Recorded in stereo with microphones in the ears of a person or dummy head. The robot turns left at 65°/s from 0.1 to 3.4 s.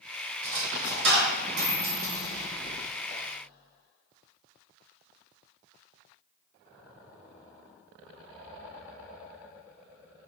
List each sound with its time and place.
0.4 s a dropped coin: 40° right (ahead or behind), 1.3 m; by 3.2 s 40° left (ahead or behind), 1.3 m